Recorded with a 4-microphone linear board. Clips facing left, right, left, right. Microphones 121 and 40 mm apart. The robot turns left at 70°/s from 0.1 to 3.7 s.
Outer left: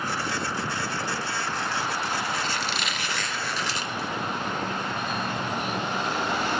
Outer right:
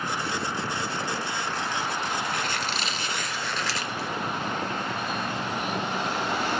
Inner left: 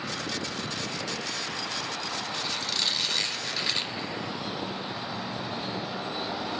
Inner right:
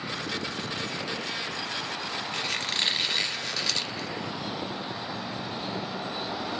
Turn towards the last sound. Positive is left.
turn(degrees=165)